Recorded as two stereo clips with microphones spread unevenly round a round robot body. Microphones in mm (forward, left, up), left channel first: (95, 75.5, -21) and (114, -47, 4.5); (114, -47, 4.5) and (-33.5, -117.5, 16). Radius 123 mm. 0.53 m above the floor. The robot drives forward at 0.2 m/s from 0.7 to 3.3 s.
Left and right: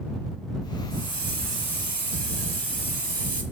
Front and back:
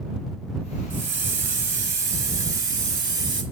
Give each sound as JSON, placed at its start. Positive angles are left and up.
{"t": 0.9, "sound": "a hiss", "azimuth_deg": -145, "distance_m": 1.5}